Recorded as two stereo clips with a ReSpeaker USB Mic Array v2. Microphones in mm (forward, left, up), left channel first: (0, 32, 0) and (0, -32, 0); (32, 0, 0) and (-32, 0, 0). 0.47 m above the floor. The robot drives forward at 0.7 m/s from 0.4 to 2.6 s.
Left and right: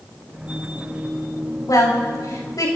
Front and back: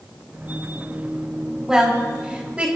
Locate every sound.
1.7 s a woman speaking: 100° left, 4.5 m; by 2.7 s 110° left, 4.5 m